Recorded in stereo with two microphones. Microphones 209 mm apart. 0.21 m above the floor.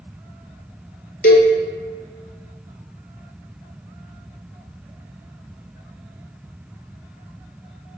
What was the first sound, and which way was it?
A cowbell, 55° left (ahead or behind).